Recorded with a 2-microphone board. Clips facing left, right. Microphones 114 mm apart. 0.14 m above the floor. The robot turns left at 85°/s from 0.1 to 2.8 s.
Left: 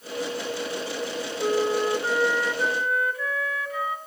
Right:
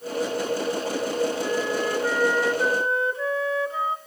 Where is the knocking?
No knocking in this recording.